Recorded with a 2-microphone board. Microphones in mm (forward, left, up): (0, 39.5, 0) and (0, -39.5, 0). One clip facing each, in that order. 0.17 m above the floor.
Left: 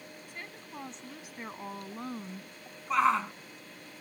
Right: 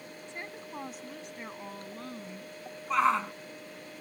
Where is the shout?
Centre (ahead or behind).